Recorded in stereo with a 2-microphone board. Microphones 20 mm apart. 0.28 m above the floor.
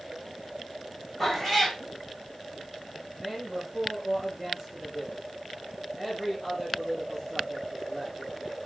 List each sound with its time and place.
1.2 s a cat meowing: 15° left (ahead or behind), 3.5 m
3.1 s a man speaking: 10° left (ahead or behind), 4 m